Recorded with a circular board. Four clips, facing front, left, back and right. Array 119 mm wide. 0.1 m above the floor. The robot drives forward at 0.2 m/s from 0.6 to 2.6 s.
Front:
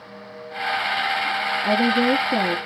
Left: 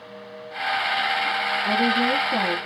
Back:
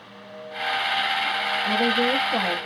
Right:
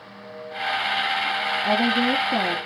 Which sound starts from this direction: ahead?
A woman speaking, at 1.6 s.